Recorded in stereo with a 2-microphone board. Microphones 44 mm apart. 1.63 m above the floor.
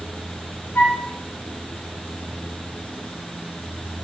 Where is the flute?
45° left (ahead or behind), 2 m.